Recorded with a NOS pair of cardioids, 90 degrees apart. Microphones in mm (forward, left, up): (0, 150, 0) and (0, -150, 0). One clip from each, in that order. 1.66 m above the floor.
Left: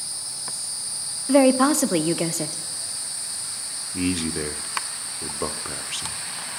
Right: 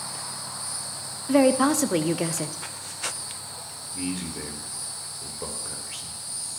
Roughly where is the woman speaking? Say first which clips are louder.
Left 3 dB; ahead.